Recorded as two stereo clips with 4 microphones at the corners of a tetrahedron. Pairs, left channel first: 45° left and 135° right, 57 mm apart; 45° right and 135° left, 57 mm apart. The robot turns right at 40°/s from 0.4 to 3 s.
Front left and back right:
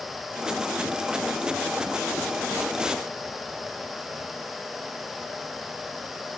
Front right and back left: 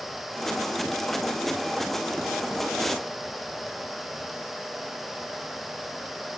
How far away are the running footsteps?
No running footsteps in this recording.